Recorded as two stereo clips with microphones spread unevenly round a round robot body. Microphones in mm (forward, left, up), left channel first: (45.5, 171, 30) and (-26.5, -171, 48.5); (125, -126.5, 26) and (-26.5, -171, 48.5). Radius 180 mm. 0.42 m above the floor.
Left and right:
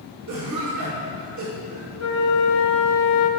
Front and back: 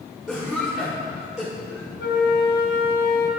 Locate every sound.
0.3 s a cough: 70° right, 1.9 m
2.0 s a flute: 35° left, 0.8 m